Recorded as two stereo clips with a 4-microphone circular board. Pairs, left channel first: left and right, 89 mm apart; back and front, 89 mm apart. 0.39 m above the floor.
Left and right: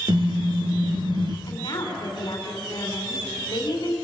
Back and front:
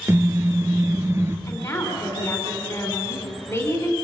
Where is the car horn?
60° right, 3 m.